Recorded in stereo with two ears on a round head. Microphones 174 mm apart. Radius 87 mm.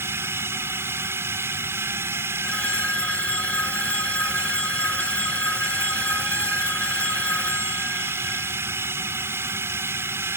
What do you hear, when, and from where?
0.0 s a drone: 10° right (ahead or behind)
2.4 s a phone ringing: 5° left (ahead or behind)